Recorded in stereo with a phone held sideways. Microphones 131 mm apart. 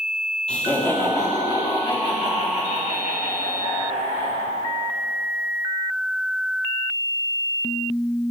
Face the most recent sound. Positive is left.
turn(degrees=80)